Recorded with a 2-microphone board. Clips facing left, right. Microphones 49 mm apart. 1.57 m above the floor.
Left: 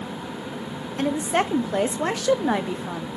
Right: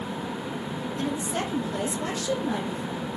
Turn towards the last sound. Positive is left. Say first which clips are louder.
# left 8 dB
turn(degrees=65)  # may be behind; listen again after turning